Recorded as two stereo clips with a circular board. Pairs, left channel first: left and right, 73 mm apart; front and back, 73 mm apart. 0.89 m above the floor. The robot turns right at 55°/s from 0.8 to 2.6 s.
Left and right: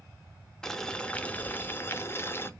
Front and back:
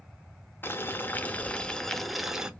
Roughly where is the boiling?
Ahead.